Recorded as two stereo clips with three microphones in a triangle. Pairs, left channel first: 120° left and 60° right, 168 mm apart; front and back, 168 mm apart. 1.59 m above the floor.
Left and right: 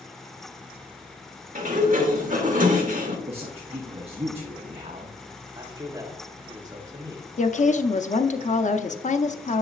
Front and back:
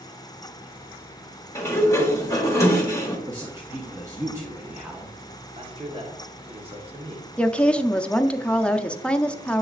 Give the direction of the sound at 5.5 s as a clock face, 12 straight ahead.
4 o'clock.